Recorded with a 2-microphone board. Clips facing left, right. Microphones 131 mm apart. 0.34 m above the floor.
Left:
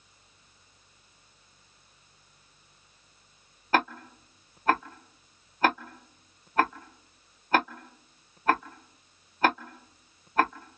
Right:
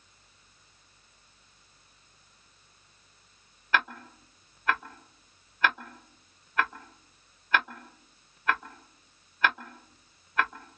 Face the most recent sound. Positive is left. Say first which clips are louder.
# left 4 dB
turn(degrees=35)  # may be behind; listen again after turning